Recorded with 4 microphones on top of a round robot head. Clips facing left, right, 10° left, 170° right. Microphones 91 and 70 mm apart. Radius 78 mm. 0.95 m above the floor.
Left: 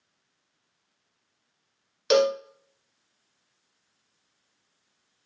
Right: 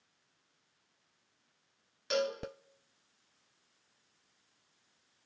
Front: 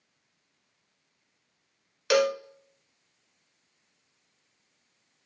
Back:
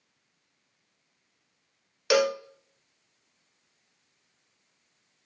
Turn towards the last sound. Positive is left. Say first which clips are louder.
# left 12 dB, even
turn(degrees=100)